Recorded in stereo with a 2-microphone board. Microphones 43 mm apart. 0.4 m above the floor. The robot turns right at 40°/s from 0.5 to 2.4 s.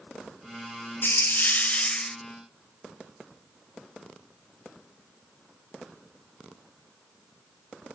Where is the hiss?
115° left, 0.7 m; by 2.2 s 160° left, 0.7 m.